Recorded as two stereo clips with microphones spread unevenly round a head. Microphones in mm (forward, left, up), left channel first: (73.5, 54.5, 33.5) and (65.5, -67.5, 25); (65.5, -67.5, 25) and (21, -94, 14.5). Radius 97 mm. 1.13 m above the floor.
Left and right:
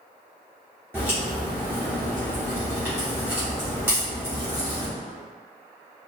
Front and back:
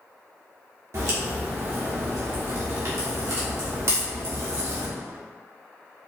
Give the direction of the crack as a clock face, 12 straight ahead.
6 o'clock.